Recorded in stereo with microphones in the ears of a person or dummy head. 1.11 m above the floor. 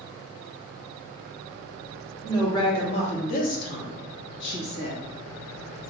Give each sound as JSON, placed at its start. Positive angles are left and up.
{"t": 2.2, "sound": "a woman speaking", "side_deg": 20, "distance_m": 1.2}